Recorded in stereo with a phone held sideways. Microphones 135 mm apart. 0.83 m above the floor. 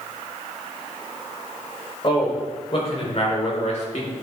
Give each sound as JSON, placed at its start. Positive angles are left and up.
{"t": 2.0, "sound": "a man speaking", "side_deg": 40, "distance_m": 3.5}